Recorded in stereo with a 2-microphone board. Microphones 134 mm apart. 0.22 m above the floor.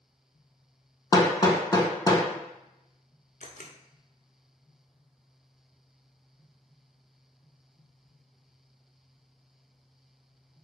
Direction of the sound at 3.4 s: 70° left (ahead or behind).